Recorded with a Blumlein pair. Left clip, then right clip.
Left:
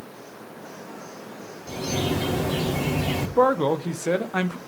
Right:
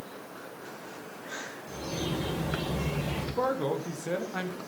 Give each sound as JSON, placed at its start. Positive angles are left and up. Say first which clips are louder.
{"t": 1.7, "sound": "a bird", "louder": "left 9 dB", "azimuth_deg": 50, "distance_m": 4.5}
{"t": 3.4, "sound": "a man speaking", "louder": "left 10 dB", "azimuth_deg": 65, "distance_m": 1.3}